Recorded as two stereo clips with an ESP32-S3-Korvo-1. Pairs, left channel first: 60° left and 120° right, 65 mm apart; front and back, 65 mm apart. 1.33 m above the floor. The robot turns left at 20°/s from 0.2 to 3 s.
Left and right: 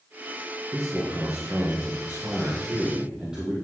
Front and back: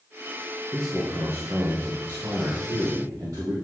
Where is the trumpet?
I don't hear a trumpet.